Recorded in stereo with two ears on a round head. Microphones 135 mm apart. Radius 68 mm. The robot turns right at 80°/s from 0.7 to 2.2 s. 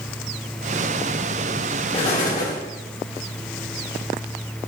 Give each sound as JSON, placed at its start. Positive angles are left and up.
{"t": 1.9, "sound": "an explosion", "side_deg": 30, "distance_m": 2.0}